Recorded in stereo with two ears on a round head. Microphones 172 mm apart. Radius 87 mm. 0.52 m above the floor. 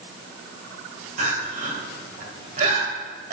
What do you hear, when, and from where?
1.2 s crying: 45° right (ahead or behind), 1.8 m